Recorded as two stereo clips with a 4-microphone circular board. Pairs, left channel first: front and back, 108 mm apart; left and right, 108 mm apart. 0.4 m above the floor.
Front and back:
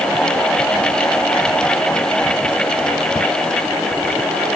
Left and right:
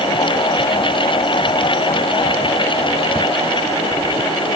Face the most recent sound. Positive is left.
No sound to turn to.